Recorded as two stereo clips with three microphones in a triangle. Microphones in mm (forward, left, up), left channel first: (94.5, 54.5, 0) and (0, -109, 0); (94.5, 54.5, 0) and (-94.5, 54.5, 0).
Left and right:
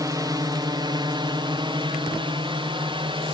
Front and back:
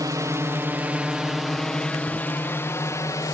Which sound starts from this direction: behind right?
A drone, at 0.0 s.